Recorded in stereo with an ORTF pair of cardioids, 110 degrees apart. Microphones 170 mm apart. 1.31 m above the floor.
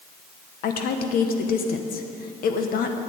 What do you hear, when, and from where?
0.6 s a woman speaking: 65° left, 1.0 m